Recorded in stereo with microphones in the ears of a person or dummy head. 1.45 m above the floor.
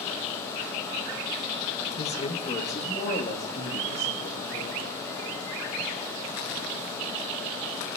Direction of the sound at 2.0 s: 25° left (ahead or behind).